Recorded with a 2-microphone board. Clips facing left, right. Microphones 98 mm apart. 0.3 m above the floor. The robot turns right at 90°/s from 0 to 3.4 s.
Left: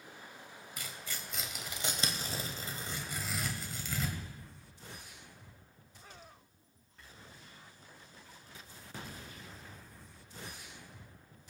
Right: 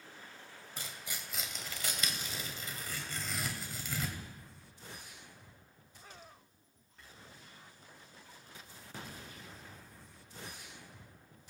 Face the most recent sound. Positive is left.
turn(degrees=0)  # may be behind; listen again after turning